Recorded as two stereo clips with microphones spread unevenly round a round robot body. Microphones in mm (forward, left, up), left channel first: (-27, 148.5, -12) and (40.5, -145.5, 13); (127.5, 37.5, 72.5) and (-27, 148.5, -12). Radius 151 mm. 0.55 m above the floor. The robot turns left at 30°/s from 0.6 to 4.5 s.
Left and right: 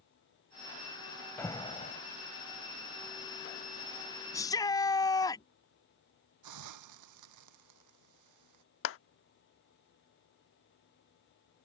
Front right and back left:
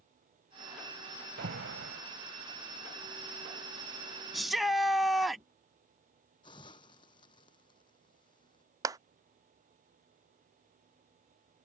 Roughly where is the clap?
Behind left.